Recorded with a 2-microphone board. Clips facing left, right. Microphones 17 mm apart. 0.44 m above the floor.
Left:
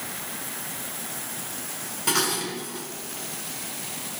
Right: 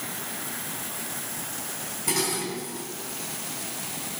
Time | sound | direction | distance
2.1 | dishes clattering | 65° left (ahead or behind) | 4 m